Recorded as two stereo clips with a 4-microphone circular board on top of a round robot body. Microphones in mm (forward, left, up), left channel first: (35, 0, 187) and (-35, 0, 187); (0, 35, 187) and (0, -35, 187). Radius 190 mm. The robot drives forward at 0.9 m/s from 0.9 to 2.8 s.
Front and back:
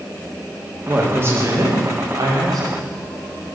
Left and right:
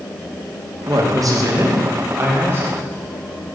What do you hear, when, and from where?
0.9 s a woman speaking: 115° right, 1.5 m; by 2.8 s 150° right, 2.5 m